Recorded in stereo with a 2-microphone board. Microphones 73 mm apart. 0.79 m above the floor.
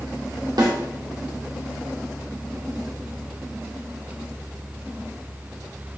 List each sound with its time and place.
0.6 s a snare drum: 70° right (ahead or behind), 2.5 m